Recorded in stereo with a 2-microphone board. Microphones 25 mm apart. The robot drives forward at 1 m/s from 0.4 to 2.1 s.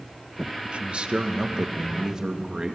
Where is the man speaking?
50° right (ahead or behind), 1.4 m; by 2.8 s 25° right (ahead or behind), 2.5 m.